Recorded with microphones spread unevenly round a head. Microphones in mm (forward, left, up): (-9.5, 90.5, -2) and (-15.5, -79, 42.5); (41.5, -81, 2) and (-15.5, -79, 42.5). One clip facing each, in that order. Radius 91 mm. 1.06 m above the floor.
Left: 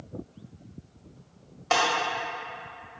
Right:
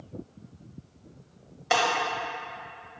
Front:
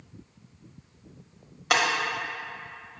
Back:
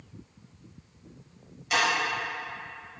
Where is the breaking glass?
15° right, 1.0 m.